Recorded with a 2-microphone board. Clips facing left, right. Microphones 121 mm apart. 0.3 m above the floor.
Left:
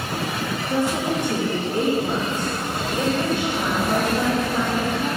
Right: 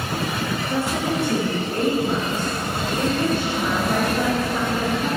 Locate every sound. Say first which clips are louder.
0.7 s a woman speaking: left 3 dB; 15° left (ahead or behind), 5.5 m; by 5.1 s 20° left (ahead or behind), 8.5 m